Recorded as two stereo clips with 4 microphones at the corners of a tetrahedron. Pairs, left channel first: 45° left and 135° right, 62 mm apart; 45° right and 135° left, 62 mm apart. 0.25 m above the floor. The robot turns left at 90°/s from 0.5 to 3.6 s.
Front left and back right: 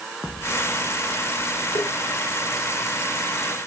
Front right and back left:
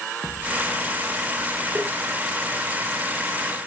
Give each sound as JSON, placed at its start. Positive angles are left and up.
{"t": 1.8, "sound": "tapping", "azimuth_deg": 60, "distance_m": 4.0}